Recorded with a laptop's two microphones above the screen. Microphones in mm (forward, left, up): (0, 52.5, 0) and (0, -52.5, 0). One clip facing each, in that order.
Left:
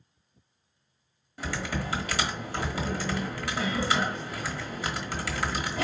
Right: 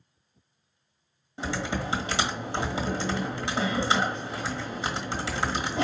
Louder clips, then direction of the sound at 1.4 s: Right 2 dB; 25° right (ahead or behind).